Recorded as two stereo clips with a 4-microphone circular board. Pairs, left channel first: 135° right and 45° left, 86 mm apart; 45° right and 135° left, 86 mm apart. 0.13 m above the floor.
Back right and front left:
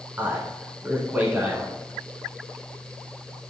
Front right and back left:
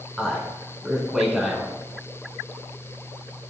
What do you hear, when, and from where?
0.2 s a man speaking: 60° left, 1.1 m